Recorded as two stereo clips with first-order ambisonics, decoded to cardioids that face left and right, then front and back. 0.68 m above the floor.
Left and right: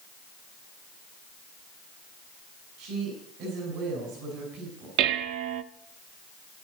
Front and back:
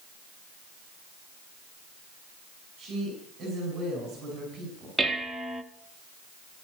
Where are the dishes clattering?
90° right, 0.7 m.